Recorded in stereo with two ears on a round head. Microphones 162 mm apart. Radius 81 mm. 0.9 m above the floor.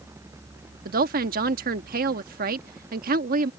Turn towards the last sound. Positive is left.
turn(degrees=-50)  # may be behind; listen again after turning